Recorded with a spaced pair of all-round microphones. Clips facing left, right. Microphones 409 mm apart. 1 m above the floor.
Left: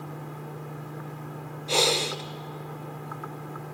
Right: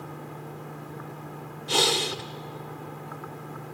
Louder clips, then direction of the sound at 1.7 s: Left 1 dB; 30° right (ahead or behind).